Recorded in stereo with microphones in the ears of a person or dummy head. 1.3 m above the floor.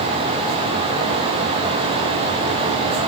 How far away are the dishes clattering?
No dishes clattering in this recording.